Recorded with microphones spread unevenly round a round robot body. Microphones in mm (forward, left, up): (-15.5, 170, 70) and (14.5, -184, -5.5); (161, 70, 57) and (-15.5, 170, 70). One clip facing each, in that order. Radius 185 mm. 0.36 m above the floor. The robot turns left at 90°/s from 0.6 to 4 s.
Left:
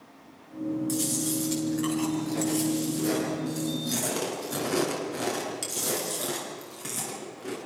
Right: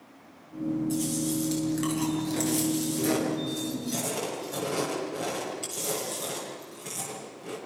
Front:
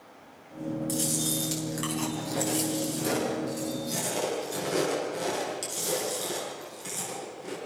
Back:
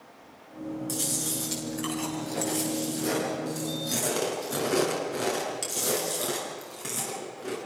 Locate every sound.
0.9 s chewing: 50° left, 7 m; by 7.6 s 130° left, 7 m